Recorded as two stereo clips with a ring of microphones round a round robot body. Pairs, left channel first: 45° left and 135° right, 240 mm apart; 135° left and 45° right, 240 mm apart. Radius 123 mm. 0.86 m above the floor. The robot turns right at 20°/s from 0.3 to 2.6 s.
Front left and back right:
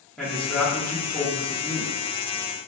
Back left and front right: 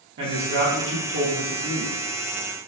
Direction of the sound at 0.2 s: 45° right.